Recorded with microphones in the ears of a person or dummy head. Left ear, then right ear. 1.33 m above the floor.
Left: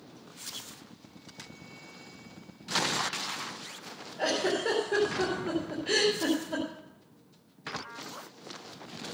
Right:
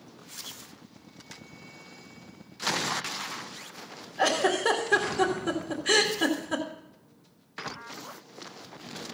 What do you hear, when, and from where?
4.2 s a giggle: 55° right (ahead or behind), 2 m